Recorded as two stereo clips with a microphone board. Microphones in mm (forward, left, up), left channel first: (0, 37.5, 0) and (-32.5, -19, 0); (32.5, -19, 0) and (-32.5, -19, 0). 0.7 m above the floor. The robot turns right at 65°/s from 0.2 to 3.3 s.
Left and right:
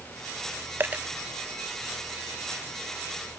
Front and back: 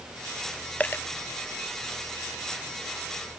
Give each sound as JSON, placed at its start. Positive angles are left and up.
{"t": 0.8, "sound": "a dropped coin", "azimuth_deg": -65}